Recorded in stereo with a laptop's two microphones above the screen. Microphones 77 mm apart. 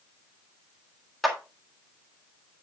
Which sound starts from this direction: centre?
A clap, at 1.2 s.